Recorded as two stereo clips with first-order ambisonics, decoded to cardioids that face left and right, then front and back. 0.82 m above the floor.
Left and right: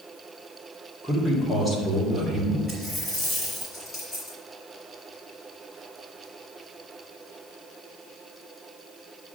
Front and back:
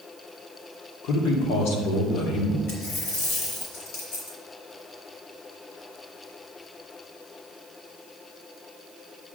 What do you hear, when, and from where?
1.0 s a man speaking: 5° right, 2 m
2.7 s a dropped coin: 10° left, 4 m